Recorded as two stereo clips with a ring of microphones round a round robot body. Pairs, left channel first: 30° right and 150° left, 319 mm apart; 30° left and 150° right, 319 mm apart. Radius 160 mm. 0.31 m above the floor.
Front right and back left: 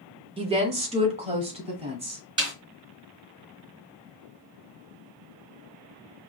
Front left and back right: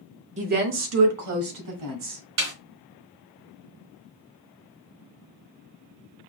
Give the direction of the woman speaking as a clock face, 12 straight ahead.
6 o'clock.